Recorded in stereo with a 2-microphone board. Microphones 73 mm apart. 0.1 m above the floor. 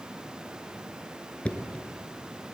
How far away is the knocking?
About 1.0 m.